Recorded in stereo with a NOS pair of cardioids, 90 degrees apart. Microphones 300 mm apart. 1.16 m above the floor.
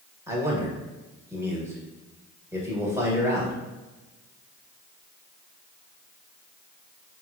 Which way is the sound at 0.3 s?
10° right.